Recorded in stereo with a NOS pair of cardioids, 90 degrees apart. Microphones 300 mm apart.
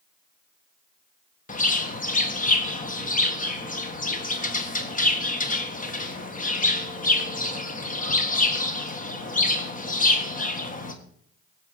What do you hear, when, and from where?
1.5 s a bird: 25° left, 1.8 m